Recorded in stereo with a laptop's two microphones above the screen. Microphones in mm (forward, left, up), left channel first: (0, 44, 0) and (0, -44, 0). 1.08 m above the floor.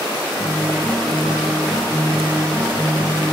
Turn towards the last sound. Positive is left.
turn(degrees=0)  # may be behind; listen again after turning